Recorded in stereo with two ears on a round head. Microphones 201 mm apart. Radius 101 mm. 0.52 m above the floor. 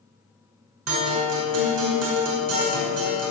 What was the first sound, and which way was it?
A guitar, 75° right (ahead or behind).